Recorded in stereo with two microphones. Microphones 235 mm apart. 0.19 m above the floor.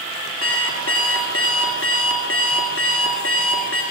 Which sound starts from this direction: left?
An alarm clock, at 0.4 s.